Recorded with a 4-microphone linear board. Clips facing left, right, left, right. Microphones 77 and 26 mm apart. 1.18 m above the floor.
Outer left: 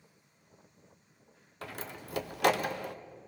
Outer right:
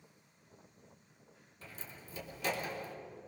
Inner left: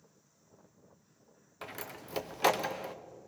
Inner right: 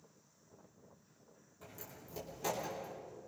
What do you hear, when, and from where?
1.6 s a door slam: 75° left (ahead or behind), 0.9 m